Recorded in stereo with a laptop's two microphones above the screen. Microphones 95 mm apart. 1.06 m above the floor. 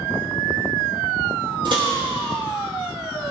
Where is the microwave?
55° right (ahead or behind), 3.5 m.